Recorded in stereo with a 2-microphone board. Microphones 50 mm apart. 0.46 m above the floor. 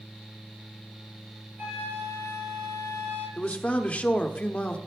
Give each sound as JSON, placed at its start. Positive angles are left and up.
{"t": 1.6, "sound": "a flute", "side_deg": -60, "distance_m": 5.0}
{"t": 3.4, "sound": "a man speaking", "side_deg": 25, "distance_m": 0.9}